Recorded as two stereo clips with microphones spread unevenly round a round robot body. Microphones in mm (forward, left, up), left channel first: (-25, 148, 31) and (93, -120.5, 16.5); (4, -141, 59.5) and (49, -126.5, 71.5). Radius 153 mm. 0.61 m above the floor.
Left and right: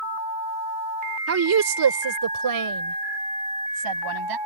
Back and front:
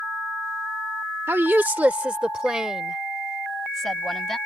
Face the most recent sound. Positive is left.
turn(degrees=-75)